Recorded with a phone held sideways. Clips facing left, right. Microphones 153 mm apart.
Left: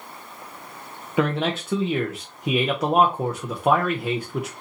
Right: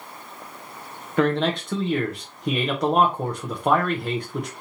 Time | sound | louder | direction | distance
1.2 | a man speaking | right 2 dB | 5° left (ahead or behind) | 0.6 m